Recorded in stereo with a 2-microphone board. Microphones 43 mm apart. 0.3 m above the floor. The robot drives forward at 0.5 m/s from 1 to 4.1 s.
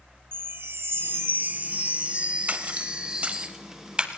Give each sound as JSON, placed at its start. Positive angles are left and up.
{"t": 0.3, "sound": "a chime", "side_deg": -70, "distance_m": 0.5}
{"t": 2.5, "sound": "a splash", "side_deg": -40, "distance_m": 0.6}